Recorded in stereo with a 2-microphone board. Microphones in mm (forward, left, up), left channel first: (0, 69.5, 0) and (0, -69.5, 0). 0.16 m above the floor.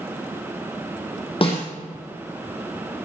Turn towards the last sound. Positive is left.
turn(degrees=40)  # may be behind; listen again after turning